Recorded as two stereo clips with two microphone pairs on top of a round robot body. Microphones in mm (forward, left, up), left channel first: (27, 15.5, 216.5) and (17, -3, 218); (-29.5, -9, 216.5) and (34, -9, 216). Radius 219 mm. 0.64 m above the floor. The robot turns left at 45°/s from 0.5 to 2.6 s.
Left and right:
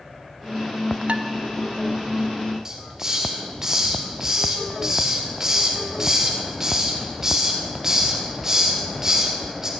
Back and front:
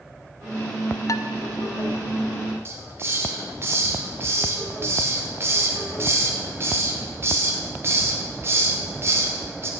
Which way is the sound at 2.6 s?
50° right.